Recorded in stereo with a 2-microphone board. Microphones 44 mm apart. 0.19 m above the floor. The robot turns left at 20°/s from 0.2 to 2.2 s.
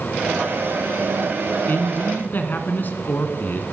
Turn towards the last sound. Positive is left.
turn(degrees=50)  # may be behind; listen again after turning